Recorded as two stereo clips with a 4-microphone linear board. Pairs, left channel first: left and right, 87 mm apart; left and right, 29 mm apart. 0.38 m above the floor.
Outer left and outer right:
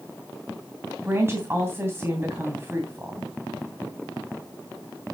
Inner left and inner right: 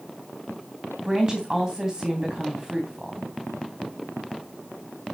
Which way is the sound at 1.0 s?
30° right (ahead or behind).